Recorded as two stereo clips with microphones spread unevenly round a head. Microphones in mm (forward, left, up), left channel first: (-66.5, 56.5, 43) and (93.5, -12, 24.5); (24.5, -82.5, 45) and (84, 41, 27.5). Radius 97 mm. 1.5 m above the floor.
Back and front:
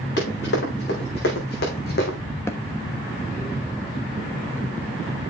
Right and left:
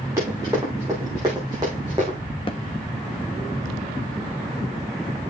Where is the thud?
140° right, 1.0 m.